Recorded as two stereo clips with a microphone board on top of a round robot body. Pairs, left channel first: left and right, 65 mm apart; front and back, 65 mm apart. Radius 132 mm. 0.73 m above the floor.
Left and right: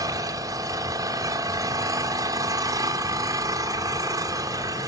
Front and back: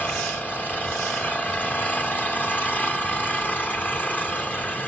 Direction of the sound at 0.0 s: 60° right.